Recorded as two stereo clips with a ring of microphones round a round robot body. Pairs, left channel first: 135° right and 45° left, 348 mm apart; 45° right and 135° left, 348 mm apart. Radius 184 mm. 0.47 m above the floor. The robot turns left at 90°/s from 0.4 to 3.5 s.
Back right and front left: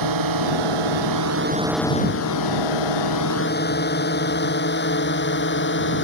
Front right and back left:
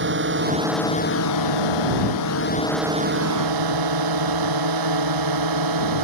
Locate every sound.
0.0 s a drone: 75° left; by 6.0 s 165° left